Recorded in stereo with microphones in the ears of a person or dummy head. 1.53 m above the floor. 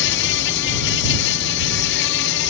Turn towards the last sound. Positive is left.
turn(degrees=65)  # may be behind; listen again after turning